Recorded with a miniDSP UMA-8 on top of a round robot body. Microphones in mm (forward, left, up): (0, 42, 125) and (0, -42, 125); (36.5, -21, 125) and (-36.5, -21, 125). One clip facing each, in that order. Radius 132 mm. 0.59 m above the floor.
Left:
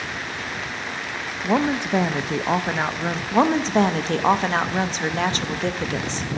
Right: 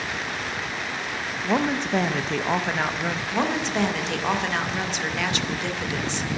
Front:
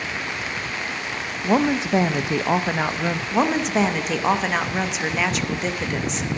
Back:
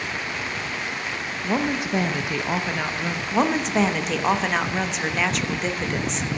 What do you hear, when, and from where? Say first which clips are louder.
1.4 s a woman speaking: left 3 dB, front 5 dB; 25° left, 0.6 m
3.3 s a woman speaking: left 8 dB, even; 85° left, 0.8 m